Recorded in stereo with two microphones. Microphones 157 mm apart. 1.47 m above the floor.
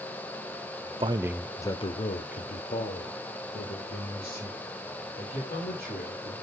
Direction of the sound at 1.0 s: 35° right (ahead or behind).